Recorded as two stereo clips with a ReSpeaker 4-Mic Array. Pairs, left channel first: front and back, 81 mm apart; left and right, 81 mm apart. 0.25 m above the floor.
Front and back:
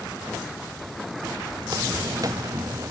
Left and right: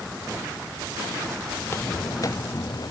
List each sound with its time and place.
1.6 s footsteps: 150° left; by 2.9 s 125° left